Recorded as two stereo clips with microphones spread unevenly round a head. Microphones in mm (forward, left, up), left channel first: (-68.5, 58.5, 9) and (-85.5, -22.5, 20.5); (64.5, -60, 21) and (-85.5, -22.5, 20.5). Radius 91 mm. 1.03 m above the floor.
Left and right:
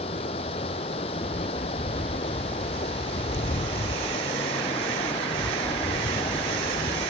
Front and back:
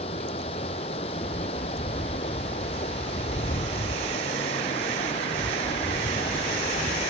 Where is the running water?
50° left.